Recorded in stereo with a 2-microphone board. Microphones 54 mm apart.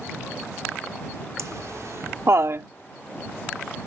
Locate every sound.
1.4 s laughter: 70° right (ahead or behind); by 2.7 s 50° right (ahead or behind)